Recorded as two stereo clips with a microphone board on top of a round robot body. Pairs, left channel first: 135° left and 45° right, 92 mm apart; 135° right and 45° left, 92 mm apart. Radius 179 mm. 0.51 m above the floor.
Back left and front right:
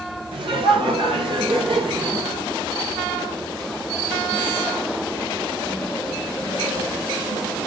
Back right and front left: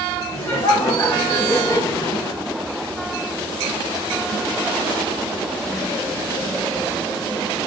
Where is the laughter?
75° right, 9 m.